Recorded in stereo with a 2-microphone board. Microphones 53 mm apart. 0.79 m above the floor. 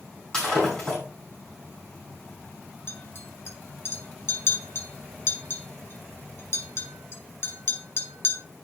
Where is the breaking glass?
15° left (ahead or behind), 5 m.